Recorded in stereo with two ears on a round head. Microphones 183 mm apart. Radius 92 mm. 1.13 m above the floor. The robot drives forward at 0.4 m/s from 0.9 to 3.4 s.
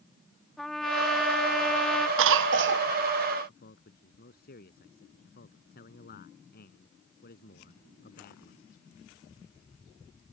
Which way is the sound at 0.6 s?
Centre (ahead or behind).